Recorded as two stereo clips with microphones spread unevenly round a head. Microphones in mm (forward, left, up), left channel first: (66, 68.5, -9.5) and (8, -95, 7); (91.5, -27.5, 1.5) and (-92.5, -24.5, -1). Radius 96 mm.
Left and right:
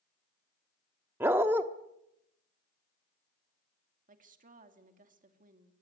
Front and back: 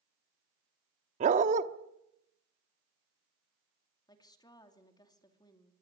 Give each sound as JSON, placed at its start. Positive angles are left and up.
{"t": 1.2, "sound": "a dog barking", "azimuth_deg": -175, "distance_m": 1.1}
{"t": 4.1, "sound": "a woman speaking", "azimuth_deg": -70, "distance_m": 2.5}